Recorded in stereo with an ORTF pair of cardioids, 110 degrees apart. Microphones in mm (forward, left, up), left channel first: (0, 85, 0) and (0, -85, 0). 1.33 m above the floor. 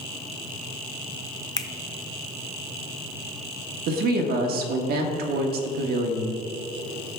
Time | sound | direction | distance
1.6 | a finger snap | 20° left | 0.6 m
3.9 | a woman speaking | 65° right | 1.4 m